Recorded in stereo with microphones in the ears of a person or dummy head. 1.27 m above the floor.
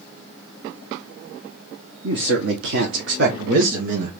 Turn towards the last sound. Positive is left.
turn(degrees=-40)  # may be behind; listen again after turning